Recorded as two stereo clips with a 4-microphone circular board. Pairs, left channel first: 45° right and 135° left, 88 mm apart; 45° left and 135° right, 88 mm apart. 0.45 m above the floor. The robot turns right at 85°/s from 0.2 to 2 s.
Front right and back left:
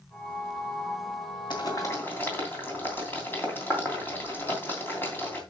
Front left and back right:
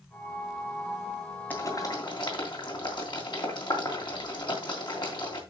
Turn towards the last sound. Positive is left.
turn(degrees=20)